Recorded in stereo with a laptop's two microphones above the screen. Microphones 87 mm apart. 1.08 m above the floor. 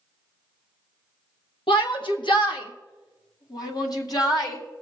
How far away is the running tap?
No running tap in this recording.